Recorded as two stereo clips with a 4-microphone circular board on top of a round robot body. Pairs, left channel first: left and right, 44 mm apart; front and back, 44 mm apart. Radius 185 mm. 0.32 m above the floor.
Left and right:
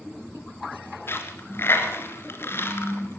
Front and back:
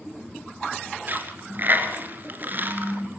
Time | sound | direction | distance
1.1 | a dropped coin | 130° left | 3 m